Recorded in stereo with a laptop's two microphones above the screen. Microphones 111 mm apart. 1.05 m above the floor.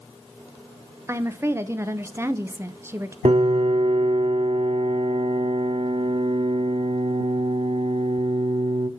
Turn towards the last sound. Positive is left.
turn(degrees=-65)  # may be behind; listen again after turning